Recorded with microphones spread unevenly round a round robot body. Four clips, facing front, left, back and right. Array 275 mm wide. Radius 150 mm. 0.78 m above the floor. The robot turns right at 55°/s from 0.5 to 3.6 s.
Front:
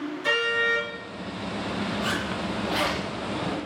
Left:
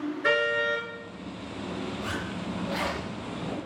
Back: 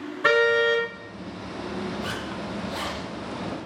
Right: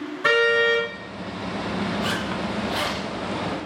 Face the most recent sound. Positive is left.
turn(degrees=25)